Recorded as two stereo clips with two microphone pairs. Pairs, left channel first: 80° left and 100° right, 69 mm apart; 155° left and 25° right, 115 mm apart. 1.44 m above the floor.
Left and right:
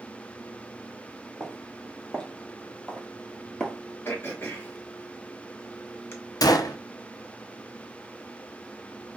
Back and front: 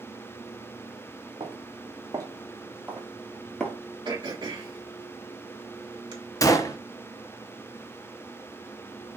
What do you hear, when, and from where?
1.4 s footsteps: straight ahead, 2 m; by 3.8 s 105° left, 1.4 m
4.0 s throat clearing: 25° left, 1.6 m
6.4 s a gunshot: 95° left, 0.6 m